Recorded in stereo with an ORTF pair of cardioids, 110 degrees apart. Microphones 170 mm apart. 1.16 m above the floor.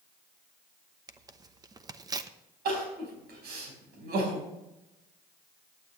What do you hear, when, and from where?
1.1 s tearing paper: 25° right, 0.9 m
2.6 s crying: 70° right, 5 m